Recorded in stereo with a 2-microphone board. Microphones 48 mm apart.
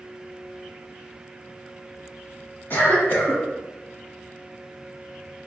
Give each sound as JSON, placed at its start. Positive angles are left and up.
{"t": 2.7, "sound": "a cough", "side_deg": 55, "distance_m": 1.7}